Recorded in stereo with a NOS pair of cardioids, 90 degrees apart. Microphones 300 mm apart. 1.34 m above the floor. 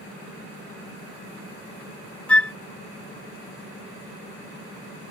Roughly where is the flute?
Ahead.